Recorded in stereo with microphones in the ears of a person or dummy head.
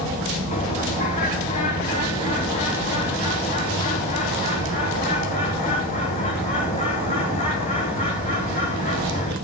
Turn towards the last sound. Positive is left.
turn(degrees=30)  # may be behind; listen again after turning